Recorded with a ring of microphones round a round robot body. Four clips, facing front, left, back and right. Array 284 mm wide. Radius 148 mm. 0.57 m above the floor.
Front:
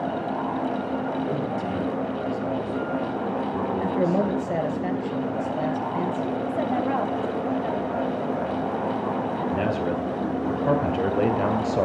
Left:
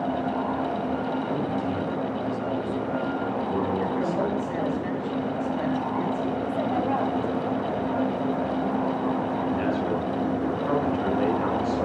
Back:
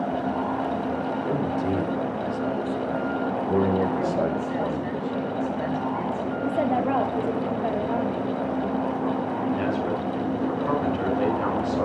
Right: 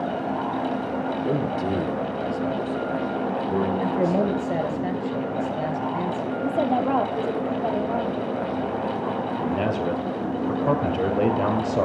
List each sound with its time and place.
1.2 s a man speaking: 100° right, 3 m; by 4.8 s 170° left, 5 m
3.8 s a man speaking: 45° right, 4 m
6.5 s a woman speaking: 125° right, 1.6 m
9.4 s a man speaking: 50° right, 3 m